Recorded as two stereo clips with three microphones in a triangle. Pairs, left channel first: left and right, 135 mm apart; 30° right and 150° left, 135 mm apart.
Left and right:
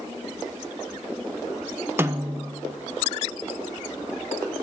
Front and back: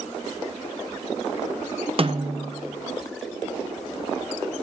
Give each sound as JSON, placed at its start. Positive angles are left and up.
{"t": 2.0, "sound": "a snare drum", "azimuth_deg": -160, "distance_m": 1.1}